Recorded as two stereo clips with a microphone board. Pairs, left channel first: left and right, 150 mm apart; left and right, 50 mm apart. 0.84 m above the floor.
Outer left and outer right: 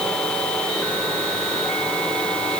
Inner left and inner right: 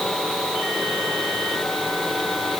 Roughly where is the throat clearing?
No throat clearing in this recording.